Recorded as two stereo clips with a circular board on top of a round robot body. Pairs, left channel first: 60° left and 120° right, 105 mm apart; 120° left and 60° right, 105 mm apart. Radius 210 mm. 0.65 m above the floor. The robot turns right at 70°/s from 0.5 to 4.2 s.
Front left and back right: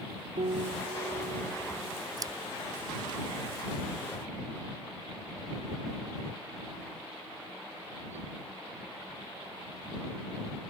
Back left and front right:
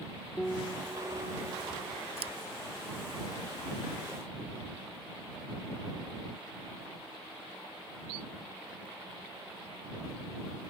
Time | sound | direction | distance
0.4 | a piano | 150° right | ?
2.2 | scissors | 70° right | ?